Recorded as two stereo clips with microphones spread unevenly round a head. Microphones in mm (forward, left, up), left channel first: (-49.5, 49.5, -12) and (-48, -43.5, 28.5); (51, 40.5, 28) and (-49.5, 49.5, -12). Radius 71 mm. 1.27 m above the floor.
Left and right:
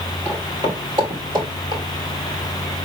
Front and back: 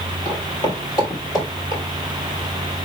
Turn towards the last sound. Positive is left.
turn(degrees=-60)